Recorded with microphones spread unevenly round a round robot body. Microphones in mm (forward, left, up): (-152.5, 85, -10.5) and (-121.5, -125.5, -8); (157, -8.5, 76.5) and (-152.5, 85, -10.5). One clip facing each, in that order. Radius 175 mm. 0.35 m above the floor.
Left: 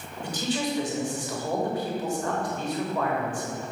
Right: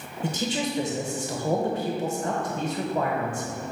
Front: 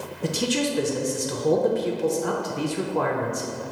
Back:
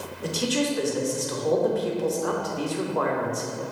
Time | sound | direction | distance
0.2 | a man speaking | 60° right | 0.8 m